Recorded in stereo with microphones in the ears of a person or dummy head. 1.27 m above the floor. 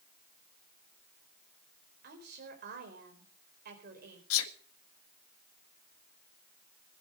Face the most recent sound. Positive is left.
turn(degrees=85)